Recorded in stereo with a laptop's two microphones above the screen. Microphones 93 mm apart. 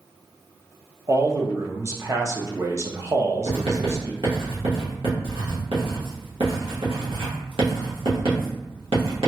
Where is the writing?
65° right (ahead or behind), 1.3 m.